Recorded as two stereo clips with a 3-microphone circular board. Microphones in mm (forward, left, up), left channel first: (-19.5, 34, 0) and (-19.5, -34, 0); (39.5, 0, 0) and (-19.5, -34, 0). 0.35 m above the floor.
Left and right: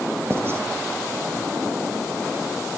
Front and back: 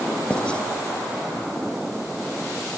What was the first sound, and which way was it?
Writing, 40° right.